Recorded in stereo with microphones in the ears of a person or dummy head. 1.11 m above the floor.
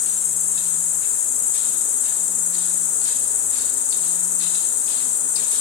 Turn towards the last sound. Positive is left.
turn(degrees=75)  # may be behind; listen again after turning